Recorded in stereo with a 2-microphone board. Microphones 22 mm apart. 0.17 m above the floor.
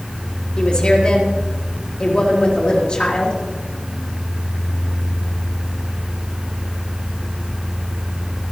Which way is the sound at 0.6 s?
35° left (ahead or behind).